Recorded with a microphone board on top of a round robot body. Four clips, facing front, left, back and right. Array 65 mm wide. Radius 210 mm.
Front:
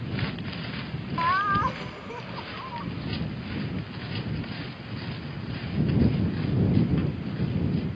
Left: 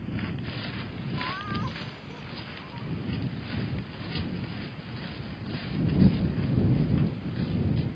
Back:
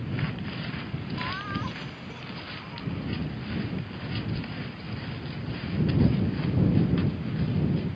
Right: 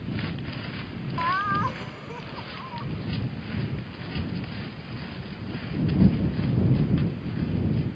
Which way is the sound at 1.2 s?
35° right.